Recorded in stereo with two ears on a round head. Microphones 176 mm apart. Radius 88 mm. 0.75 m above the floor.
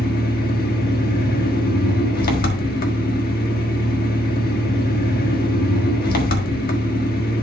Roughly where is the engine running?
Left.